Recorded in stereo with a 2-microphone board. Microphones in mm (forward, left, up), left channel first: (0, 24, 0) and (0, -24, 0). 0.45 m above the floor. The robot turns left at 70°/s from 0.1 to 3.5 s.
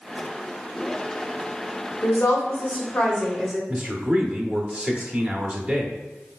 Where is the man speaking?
25° right (ahead or behind), 0.8 m.